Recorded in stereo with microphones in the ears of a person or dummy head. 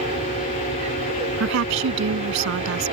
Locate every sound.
0.0 s an aircraft: 35° right (ahead or behind)
1.4 s a woman speaking: 75° right (ahead or behind)